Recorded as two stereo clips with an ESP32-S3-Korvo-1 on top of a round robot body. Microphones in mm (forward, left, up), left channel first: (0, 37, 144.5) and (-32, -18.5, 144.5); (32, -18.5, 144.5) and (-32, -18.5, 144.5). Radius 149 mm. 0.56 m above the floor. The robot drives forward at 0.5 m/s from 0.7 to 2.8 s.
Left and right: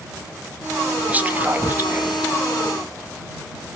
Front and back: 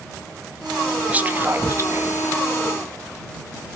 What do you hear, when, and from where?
1.1 s whispering: 145° right, 0.8 m; by 2.3 s 170° right, 1.1 m